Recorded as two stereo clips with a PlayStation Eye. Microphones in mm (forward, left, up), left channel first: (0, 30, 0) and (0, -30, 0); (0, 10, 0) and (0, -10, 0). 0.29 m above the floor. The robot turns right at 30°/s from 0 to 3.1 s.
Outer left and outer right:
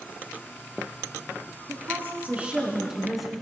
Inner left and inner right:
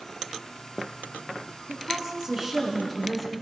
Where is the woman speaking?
40° right, 2.5 m; by 3.3 s straight ahead, 2.5 m.